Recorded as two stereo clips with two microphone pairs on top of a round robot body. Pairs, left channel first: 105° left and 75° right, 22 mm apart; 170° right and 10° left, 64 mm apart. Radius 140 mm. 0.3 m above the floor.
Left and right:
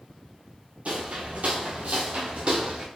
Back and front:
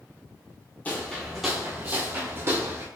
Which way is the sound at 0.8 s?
100° right.